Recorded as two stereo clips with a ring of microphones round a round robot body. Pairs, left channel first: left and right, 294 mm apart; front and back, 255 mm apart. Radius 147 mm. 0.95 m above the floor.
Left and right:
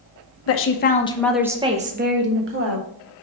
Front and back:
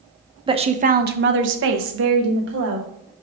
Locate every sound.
0.5 s a woman speaking: 115° left, 0.9 m; by 2.9 s 130° right, 1.6 m